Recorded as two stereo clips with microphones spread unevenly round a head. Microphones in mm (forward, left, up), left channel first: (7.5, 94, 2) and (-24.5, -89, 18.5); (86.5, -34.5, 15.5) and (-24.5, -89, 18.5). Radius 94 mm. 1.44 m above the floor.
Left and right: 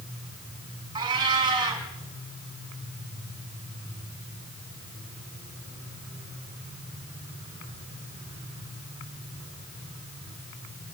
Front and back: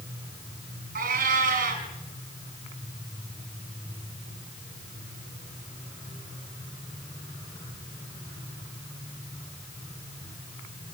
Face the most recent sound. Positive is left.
turn(degrees=-165)